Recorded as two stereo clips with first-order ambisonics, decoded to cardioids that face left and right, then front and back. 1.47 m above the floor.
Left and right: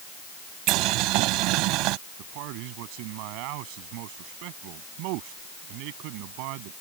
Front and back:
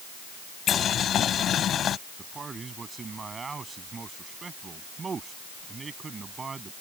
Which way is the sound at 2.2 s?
105° right.